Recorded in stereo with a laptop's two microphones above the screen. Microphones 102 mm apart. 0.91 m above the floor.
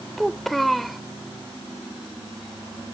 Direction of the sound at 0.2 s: Centre (ahead or behind).